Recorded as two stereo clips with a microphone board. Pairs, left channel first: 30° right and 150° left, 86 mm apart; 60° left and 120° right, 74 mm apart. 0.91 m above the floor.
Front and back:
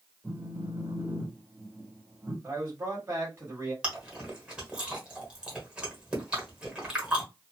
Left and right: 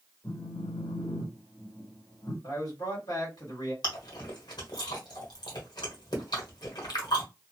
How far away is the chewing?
About 1.3 m.